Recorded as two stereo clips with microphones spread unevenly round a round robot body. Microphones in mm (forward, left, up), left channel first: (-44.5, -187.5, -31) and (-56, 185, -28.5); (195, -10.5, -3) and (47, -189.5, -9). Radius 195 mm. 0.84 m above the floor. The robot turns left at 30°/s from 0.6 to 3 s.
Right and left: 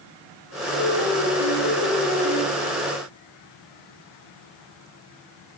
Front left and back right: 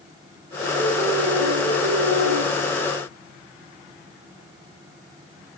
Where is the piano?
115° right, 6.5 m; by 2.4 s 165° right, 6.5 m.